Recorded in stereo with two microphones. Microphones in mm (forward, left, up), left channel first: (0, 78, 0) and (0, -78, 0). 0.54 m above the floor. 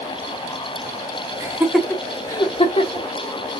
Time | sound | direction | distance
1.4 | laughter | 20° right (ahead or behind) | 1.0 m